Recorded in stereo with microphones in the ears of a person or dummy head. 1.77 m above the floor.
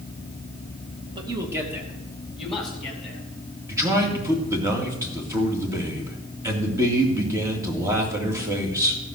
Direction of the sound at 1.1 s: 25° right (ahead or behind).